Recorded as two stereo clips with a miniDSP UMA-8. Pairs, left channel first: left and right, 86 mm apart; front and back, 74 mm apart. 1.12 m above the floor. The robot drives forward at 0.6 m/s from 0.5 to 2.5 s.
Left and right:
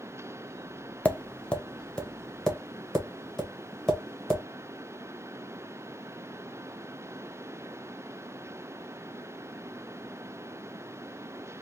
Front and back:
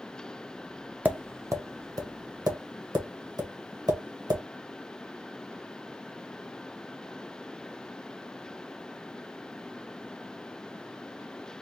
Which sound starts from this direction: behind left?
Tapping, at 1.1 s.